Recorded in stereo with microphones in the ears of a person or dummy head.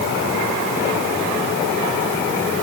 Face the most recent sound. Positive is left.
No sound to turn to.